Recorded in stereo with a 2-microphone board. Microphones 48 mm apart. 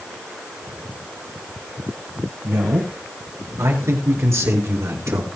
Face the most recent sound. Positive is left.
turn(degrees=-60)  # may be behind; listen again after turning